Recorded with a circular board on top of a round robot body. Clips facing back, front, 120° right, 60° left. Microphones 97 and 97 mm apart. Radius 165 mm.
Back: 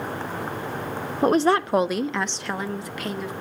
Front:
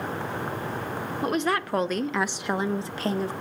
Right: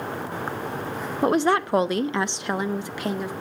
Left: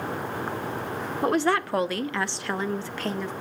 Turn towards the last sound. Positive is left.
turn(degrees=-45)